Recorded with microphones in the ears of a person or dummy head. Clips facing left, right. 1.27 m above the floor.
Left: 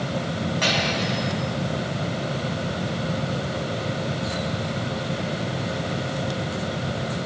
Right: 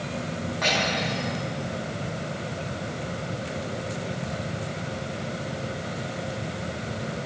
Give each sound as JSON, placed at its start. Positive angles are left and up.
{"t": 0.6, "sound": "cutlery clinking", "side_deg": 45, "distance_m": 5.5}